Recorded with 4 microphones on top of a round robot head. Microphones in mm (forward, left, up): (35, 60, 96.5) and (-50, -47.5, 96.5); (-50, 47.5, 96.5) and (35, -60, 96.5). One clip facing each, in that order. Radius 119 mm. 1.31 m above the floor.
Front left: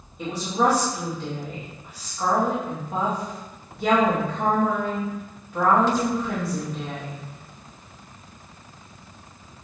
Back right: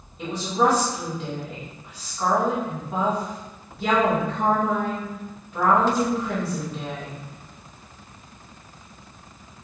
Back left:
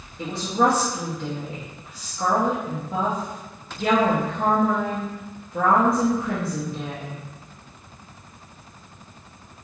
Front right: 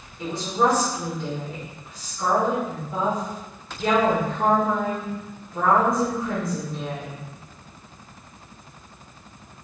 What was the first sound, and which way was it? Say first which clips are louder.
A woman speaking: back right 1 dB, back left 1 dB; 140° left.